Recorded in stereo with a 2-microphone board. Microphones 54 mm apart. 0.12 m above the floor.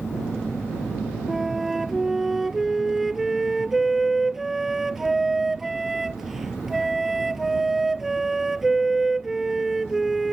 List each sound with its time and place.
1.3 s a flute: 5° right (ahead or behind)